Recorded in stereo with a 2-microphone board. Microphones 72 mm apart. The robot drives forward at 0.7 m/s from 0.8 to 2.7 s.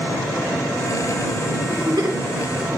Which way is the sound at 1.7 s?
85° right.